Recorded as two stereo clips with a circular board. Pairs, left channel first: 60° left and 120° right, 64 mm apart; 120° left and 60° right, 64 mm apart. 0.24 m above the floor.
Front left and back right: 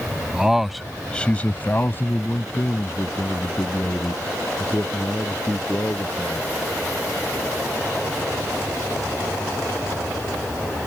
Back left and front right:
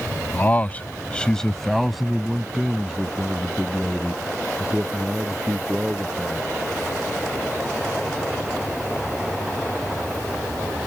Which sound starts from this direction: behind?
A man speaking, at 0.3 s.